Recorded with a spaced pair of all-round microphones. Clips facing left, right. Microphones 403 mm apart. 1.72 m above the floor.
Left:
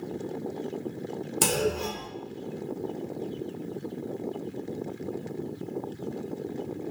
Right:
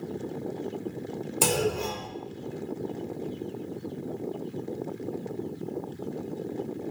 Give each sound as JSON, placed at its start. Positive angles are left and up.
{"t": 1.4, "sound": "a clunk", "side_deg": 30, "distance_m": 1.1}